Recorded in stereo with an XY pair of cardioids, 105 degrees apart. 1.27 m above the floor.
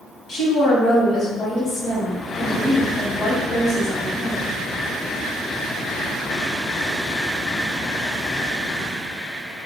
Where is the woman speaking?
65° left, 1.1 m.